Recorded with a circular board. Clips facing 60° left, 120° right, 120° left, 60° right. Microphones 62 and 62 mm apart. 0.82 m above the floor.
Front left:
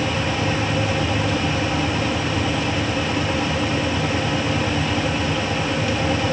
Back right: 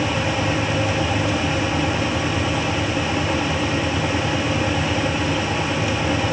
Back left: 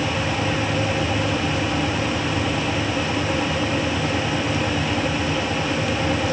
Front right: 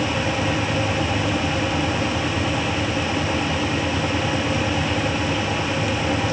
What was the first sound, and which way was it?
Only background noise.